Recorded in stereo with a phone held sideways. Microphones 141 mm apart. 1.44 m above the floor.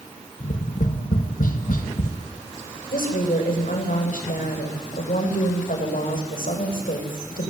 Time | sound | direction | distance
0.4 | tapping | 75° left (ahead or behind) | 2.5 m
2.9 | a woman speaking | 80° left | 7.5 m